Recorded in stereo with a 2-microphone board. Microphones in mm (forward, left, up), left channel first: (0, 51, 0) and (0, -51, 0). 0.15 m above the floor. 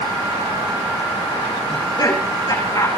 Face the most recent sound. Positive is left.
turn(degrees=35)  # may be behind; listen again after turning